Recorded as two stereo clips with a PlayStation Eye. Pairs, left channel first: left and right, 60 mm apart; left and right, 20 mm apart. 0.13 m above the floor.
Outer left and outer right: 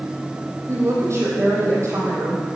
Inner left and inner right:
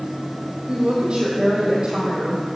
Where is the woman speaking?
55° right (ahead or behind), 3.5 m.